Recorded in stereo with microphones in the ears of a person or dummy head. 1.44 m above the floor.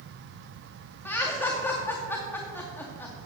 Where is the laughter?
15° left (ahead or behind), 2 m.